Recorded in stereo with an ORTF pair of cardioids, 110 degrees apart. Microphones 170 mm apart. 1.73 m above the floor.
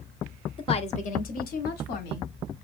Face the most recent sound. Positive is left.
turn(degrees=75)